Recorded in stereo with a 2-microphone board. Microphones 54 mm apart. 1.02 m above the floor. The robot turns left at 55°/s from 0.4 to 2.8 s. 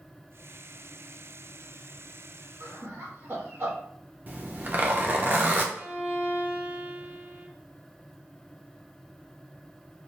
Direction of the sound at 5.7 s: 25° right (ahead or behind).